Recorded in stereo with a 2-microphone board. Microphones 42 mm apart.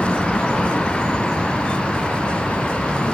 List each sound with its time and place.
0.0 s a vehicle: 25° left (ahead or behind)